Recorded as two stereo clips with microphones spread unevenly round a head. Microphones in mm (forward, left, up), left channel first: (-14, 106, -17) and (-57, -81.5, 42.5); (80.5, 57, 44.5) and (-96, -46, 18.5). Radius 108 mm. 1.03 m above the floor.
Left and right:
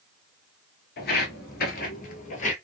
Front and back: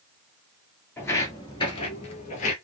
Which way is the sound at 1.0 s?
85° left.